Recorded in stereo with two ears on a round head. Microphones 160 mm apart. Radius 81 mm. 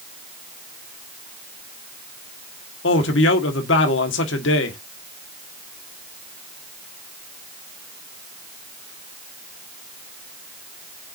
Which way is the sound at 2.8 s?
70° left (ahead or behind).